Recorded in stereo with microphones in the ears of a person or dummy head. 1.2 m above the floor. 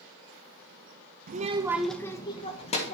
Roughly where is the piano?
No piano in this recording.